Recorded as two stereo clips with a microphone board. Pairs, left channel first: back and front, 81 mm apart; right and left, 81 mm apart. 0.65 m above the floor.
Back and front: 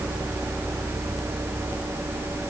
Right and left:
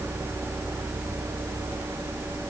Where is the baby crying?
I don't hear a baby crying.